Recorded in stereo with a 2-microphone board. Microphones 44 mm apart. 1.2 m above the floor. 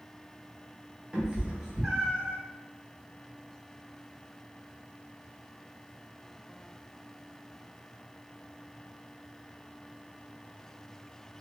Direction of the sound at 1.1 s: 25° right (ahead or behind).